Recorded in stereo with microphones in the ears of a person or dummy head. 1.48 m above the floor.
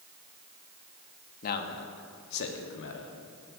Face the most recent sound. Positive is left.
turn(degrees=80)